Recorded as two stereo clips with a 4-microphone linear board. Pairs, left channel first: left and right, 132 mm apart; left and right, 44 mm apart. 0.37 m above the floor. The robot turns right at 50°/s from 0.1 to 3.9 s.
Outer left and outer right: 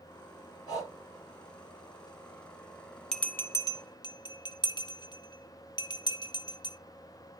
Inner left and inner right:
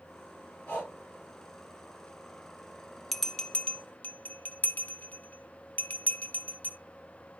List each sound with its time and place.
0.7 s breathing: 30° left (ahead or behind), 8.5 m; by 0.9 s 15° left (ahead or behind), 8.5 m
3.1 s a bell: 5° left (ahead or behind), 0.8 m; by 6.8 s 35° left (ahead or behind), 0.8 m